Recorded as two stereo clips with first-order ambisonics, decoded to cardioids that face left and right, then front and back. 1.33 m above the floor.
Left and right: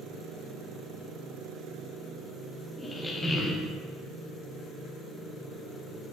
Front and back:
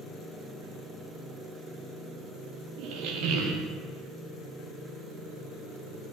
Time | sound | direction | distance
2.8 | a squeak | 170° left | 0.6 m